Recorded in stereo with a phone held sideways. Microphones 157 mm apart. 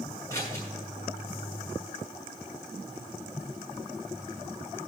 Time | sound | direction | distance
0.3 | scissors | 20° left (ahead or behind) | 6 m